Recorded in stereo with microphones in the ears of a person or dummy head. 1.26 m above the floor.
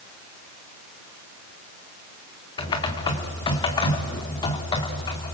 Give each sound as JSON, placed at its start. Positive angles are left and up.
{"t": 2.6, "sound": "typing on a keyboard", "side_deg": 30, "distance_m": 2.0}